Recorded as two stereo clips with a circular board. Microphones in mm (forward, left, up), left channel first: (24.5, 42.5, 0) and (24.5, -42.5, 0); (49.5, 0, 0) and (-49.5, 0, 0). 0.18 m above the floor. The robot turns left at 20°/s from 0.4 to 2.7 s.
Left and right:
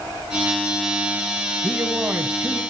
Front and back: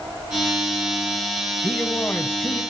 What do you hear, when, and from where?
1.6 s a man speaking: 35° right, 1.1 m; by 2.6 s 55° right, 1.1 m